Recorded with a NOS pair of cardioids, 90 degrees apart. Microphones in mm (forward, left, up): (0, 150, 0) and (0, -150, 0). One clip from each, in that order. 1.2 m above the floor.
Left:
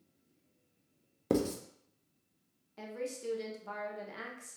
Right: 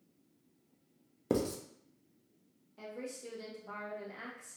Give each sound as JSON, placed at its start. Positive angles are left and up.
{"t": 1.3, "sound": "writing", "azimuth_deg": 5, "distance_m": 0.6}
{"t": 2.8, "sound": "a woman speaking", "azimuth_deg": 45, "distance_m": 1.0}